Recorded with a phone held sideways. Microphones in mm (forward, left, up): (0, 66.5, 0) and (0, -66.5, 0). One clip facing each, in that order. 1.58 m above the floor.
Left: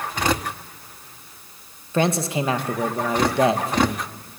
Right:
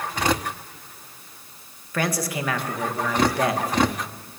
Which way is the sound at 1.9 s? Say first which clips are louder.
Left 5 dB; 25° left (ahead or behind).